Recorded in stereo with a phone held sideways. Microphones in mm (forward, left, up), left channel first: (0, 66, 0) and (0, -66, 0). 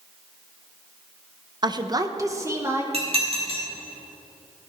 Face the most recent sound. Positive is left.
turn(degrees=-50)  # may be behind; listen again after turning